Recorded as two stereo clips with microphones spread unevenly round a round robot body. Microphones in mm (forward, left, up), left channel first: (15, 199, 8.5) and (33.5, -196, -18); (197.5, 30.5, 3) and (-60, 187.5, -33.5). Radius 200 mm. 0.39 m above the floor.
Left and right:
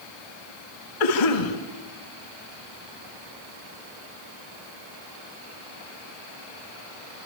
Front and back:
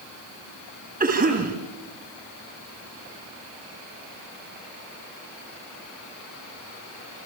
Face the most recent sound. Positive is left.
turn(degrees=90)